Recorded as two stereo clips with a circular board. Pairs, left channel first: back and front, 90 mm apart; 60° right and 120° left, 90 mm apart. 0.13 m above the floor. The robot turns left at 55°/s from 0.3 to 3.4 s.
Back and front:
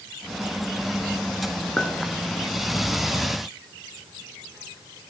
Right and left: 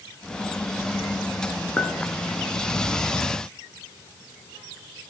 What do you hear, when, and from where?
1.8 s a clink: 115° right, 0.8 m; by 1.9 s 125° right, 0.8 m